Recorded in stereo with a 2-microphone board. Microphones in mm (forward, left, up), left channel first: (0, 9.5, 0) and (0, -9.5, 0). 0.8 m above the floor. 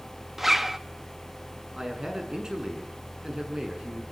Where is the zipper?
10° right (ahead or behind), 1.3 m.